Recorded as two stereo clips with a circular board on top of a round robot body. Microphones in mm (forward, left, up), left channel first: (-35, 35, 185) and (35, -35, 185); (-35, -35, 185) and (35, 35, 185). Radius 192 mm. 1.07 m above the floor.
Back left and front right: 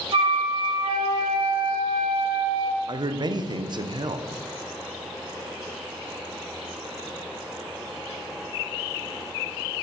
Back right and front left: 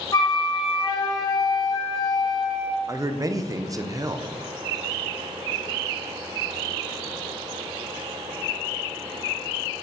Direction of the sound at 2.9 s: 5° right.